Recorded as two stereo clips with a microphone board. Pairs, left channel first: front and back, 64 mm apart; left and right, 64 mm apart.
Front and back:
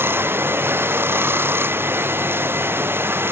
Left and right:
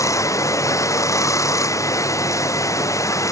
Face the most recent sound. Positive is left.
turn(degrees=125)